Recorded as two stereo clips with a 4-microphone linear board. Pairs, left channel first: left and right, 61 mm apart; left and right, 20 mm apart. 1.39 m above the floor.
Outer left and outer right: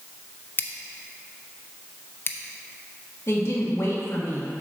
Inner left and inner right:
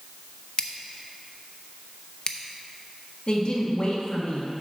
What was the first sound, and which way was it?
Scissors, 35° left (ahead or behind).